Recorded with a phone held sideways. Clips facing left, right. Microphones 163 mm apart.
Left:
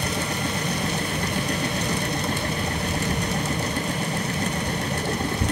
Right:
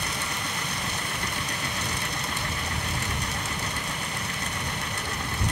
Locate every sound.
0.0 s a machine running: 40° left (ahead or behind)